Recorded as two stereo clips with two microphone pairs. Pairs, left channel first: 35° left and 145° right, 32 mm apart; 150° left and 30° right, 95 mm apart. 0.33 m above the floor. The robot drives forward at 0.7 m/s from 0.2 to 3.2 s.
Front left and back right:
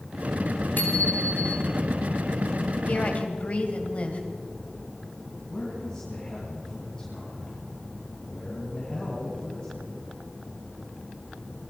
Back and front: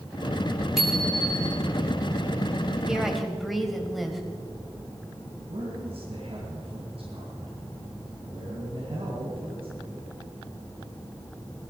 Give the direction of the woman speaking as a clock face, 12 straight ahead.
10 o'clock.